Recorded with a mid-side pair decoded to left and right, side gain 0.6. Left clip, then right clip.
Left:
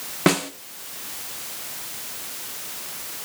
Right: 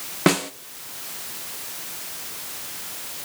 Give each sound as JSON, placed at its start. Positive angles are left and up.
{"t": 0.3, "sound": "a snare drum", "azimuth_deg": 0, "distance_m": 1.1}